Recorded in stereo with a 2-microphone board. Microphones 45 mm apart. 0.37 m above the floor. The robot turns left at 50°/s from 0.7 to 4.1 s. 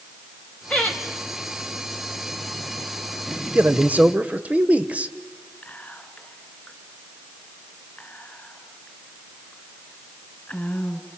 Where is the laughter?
25° left (ahead or behind), 2.5 m; by 1.0 s 35° left (ahead or behind), 2.5 m.